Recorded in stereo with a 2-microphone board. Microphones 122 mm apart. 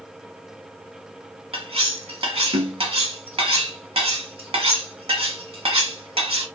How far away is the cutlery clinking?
About 0.9 m.